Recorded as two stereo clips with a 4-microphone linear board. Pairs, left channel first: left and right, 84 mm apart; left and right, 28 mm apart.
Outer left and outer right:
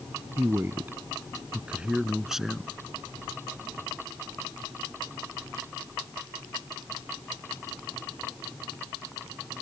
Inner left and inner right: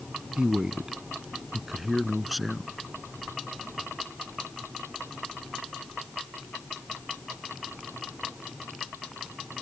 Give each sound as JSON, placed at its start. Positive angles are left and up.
{"t": 0.4, "sound": "a man speaking", "side_deg": -35}